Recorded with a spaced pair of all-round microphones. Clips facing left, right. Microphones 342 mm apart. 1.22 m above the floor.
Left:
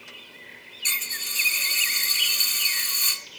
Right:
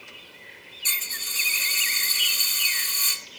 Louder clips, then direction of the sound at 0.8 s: Left 2 dB; 75° left (ahead or behind).